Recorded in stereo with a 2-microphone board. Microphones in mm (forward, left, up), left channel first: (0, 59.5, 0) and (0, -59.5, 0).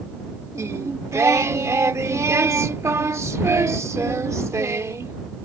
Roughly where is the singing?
Right.